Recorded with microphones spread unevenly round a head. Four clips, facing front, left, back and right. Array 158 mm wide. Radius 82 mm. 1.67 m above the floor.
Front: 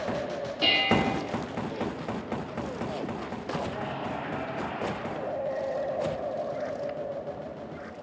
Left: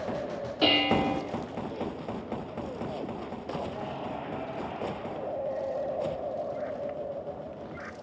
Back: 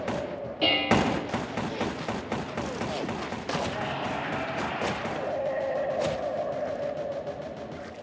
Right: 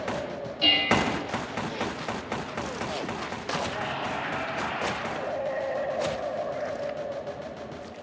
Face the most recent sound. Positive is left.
turn(degrees=110)